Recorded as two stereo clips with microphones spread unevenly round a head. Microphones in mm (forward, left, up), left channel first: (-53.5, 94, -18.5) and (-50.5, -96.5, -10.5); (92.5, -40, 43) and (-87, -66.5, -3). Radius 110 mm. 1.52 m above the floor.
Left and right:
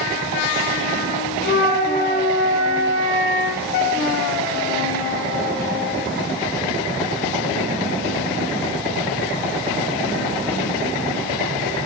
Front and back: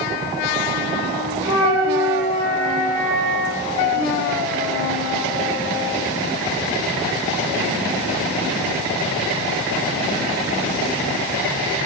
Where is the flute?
105° left, 0.6 m.